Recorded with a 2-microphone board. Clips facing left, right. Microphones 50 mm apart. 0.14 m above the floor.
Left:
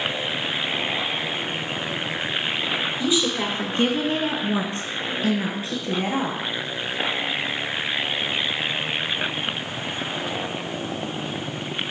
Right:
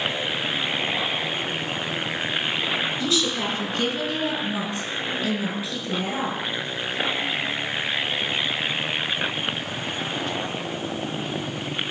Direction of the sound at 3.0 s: 15° left (ahead or behind).